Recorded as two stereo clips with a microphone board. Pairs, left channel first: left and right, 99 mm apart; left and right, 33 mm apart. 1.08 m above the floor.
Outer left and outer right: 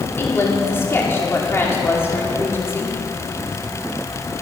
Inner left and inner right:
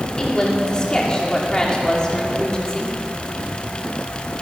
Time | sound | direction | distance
0.2 | a woman speaking | 25° left (ahead or behind) | 2.5 m